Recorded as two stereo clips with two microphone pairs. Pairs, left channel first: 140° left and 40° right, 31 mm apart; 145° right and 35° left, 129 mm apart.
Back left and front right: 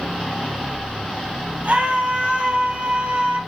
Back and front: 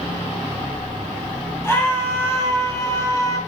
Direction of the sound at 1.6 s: 75° right.